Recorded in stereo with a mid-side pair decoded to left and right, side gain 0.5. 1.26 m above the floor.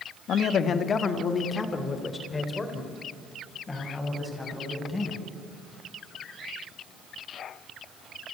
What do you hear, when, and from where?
0.3 s a man speaking: 60° left, 1.6 m; by 5.2 s 15° left, 8.5 m